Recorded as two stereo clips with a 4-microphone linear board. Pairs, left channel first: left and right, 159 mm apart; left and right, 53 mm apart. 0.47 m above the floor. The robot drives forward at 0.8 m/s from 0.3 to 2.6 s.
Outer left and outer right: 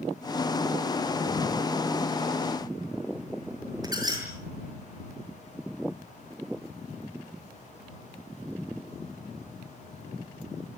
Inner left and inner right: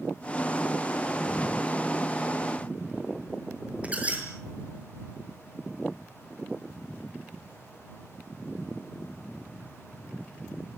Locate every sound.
3.8 s a squeak: 25° right (ahead or behind), 7 m